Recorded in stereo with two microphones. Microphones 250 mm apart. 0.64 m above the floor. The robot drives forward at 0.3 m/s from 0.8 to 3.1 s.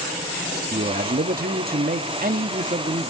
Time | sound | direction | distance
0.7 | a man speaking | 35° right (ahead or behind) | 0.6 m